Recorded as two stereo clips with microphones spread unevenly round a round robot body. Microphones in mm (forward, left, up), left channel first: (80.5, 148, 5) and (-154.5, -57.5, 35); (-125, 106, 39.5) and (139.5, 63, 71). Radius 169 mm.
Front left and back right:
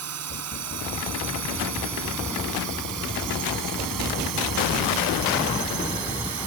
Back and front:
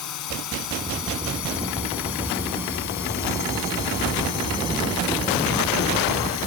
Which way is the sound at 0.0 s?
Straight behind.